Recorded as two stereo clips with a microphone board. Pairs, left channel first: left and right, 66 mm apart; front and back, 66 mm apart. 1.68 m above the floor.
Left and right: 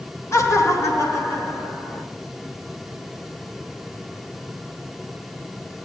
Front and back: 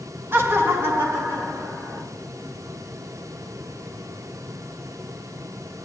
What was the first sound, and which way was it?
Laughter, 130° left.